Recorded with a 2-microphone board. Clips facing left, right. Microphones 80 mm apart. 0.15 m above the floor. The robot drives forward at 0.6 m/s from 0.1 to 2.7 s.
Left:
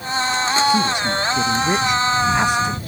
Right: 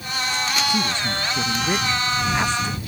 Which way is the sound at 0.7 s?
15° left (ahead or behind).